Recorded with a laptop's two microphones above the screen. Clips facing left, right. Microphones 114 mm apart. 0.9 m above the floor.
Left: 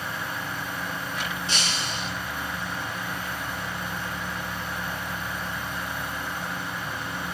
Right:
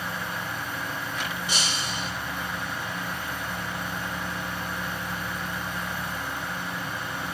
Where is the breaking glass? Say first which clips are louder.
Even; 10° right (ahead or behind), 8.5 m.